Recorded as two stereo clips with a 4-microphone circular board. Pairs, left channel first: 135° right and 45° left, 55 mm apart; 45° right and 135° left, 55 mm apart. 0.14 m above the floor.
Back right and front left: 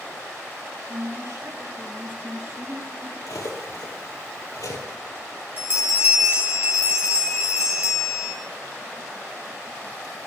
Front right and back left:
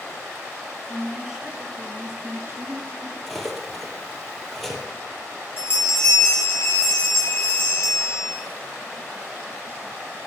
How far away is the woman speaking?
About 3 m.